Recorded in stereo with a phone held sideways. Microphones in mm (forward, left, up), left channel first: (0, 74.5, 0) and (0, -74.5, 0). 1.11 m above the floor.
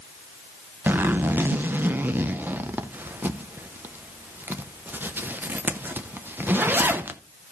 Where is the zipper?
15° right (ahead or behind), 0.6 m.